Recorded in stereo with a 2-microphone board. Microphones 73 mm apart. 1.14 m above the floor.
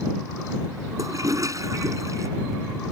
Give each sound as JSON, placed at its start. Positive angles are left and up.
{"t": 1.0, "sound": "a toilet flushing", "side_deg": -50}